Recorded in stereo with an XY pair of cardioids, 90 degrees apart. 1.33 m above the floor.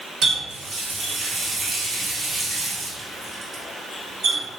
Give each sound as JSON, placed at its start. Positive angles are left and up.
{"t": 0.2, "sound": "a running tap", "azimuth_deg": -70, "distance_m": 1.7}